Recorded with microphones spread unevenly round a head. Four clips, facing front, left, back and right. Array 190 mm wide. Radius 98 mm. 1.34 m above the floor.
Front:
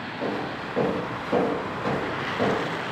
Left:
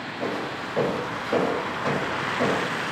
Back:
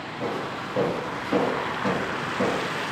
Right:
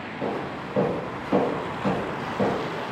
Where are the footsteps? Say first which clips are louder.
Even, even; 170° right, 1.5 m; by 2.6 s 55° right, 1.4 m.